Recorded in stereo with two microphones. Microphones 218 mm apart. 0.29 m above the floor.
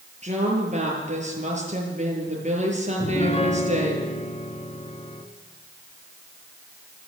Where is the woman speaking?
30° right (ahead or behind), 7 m.